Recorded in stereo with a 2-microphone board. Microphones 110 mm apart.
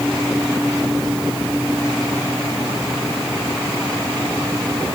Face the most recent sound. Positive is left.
No sound to turn to.